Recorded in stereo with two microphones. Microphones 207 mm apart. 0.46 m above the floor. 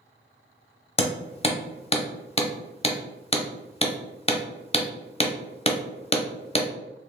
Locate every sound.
1.0 s hammering: 30° left (ahead or behind), 0.7 m